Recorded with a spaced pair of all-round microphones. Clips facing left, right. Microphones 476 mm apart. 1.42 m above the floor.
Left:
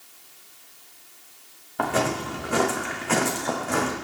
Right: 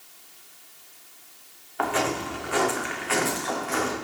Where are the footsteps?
60° left (ahead or behind), 5 m; by 3.9 s 65° left (ahead or behind), 4.5 m.